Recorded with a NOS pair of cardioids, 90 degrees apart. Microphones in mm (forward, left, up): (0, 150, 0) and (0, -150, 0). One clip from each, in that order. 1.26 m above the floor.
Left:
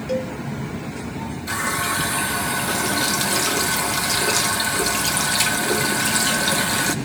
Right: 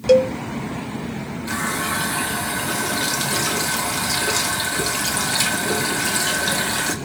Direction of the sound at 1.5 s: 10° left.